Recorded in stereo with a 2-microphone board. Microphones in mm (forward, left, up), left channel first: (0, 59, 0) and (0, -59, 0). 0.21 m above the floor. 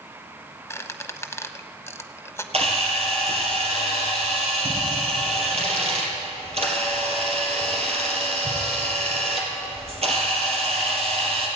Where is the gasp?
No gasp in this recording.